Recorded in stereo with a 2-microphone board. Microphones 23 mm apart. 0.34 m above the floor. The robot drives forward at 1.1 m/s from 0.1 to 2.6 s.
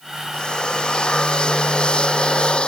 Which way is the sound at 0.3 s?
40° left (ahead or behind).